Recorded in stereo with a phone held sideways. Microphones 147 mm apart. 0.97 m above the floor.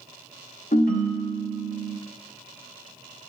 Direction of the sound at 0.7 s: 75° left (ahead or behind).